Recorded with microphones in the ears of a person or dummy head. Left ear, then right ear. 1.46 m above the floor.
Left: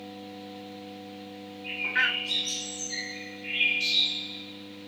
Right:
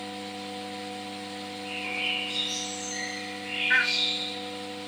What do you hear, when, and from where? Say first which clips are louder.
1.6 s a bird: left 5 dB; 65° left (ahead or behind), 3 m